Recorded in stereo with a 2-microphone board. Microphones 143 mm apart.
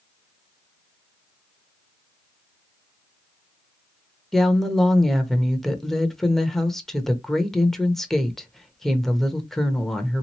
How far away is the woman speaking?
About 0.9 m.